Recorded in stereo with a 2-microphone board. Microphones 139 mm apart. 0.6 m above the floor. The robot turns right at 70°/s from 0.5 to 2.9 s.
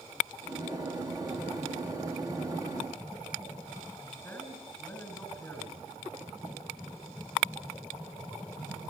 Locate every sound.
4.2 s a man speaking: 15° left (ahead or behind), 6 m